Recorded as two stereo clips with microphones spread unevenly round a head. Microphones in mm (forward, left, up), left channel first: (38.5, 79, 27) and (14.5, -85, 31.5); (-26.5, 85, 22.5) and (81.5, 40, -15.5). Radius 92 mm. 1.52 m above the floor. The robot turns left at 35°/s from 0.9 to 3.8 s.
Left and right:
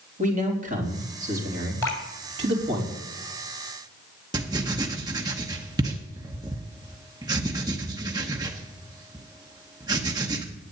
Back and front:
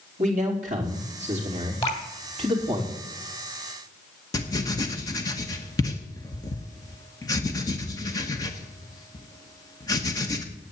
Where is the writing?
165° right, 0.9 m.